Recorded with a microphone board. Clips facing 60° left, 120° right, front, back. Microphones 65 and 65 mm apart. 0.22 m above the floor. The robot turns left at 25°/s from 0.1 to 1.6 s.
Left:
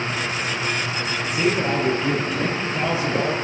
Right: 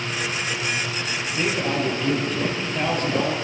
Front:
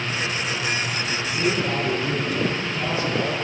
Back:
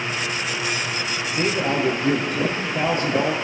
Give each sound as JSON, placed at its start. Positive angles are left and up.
{"t": 1.3, "sound": "a man speaking", "azimuth_deg": 150, "distance_m": 5.0}